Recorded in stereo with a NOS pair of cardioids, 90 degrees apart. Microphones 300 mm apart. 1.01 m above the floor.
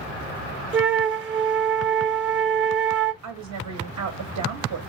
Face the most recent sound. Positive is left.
turn(degrees=-70)